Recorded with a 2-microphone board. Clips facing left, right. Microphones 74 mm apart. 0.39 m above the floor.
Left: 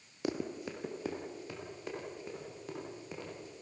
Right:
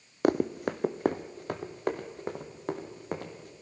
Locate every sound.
0.2 s running footsteps: 55° right (ahead or behind), 0.7 m; by 3.5 s 60° right (ahead or behind), 3.5 m